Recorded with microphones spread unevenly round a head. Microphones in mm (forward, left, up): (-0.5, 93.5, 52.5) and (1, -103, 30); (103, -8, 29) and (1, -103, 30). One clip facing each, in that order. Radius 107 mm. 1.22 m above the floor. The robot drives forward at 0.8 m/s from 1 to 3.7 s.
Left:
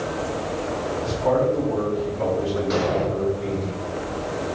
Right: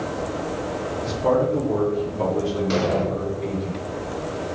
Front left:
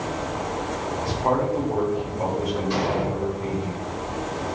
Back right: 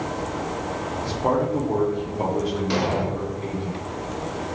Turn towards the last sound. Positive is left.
turn(degrees=-165)